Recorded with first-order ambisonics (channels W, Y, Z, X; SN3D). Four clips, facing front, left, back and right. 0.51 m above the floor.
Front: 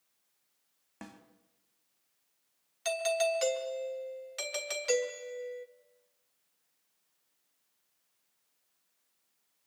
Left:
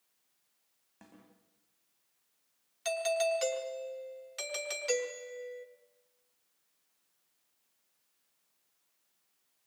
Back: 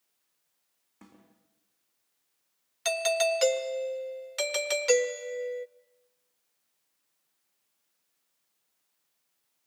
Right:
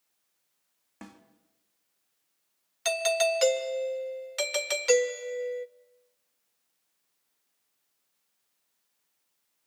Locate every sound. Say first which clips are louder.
1.0 s a snare drum: right 9 dB, front 6 dB; 35° right, 3.5 m
2.9 s a doorbell: right 5 dB, back 4 dB; 130° right, 1.3 m